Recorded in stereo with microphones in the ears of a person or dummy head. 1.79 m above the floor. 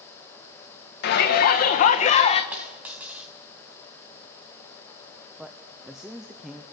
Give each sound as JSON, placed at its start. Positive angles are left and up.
{"t": 1.0, "sound": "a shout", "side_deg": 60, "distance_m": 1.9}
{"t": 2.5, "sound": "a dropped coin", "side_deg": -10, "distance_m": 4.0}
{"t": 5.4, "sound": "a man speaking", "side_deg": -5, "distance_m": 0.8}